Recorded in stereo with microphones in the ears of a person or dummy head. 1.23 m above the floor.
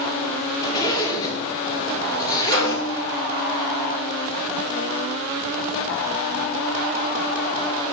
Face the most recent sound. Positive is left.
turn(degrees=-50)  # may be behind; listen again after turning